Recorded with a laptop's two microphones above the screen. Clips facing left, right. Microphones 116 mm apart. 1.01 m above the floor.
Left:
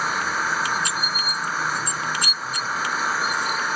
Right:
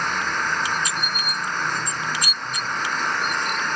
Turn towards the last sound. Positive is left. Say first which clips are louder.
# even
turn(degrees=5)  # may be behind; listen again after turning